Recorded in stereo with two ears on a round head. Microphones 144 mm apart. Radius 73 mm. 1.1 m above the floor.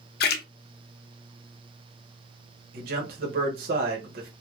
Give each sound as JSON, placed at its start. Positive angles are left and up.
{"t": 0.2, "sound": "a splash", "side_deg": 70, "distance_m": 0.5}
{"t": 2.7, "sound": "a man speaking", "side_deg": -60, "distance_m": 1.2}